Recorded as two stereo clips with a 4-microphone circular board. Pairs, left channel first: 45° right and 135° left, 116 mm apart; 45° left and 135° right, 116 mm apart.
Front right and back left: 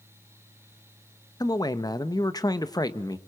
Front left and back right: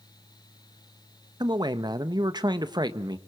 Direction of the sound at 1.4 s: 95° right.